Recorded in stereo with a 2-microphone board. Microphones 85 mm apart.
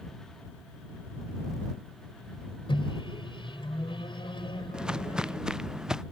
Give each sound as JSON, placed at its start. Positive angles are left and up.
{"t": 2.7, "sound": "a microwave", "side_deg": 75}
{"t": 4.7, "sound": "footsteps", "side_deg": -10}